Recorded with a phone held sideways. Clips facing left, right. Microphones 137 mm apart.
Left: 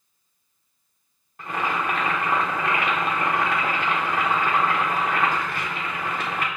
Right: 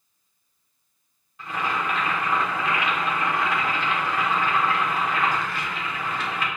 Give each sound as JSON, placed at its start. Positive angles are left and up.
{"t": 1.4, "sound": "boiling", "side_deg": 50, "distance_m": 0.9}